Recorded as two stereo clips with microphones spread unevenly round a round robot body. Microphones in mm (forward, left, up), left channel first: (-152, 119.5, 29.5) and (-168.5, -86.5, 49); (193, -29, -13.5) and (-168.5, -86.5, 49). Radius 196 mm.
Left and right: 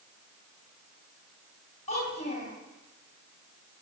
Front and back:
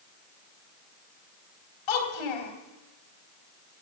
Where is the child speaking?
10° left, 3 m.